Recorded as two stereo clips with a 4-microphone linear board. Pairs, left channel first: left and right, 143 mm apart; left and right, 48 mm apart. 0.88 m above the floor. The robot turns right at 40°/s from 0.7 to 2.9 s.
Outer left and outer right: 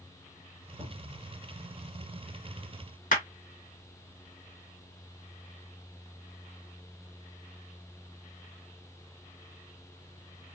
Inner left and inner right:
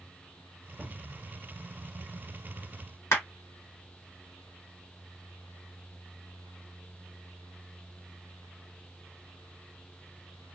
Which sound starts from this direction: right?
A cupboard door, at 0.8 s.